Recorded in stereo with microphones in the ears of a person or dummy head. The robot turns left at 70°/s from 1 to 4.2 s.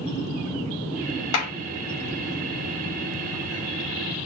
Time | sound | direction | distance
1.3 | a clap | 85° left | 2.5 m